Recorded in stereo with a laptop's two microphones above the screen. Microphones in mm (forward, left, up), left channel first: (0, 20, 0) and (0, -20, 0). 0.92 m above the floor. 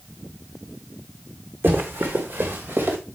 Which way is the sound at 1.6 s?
70° right (ahead or behind).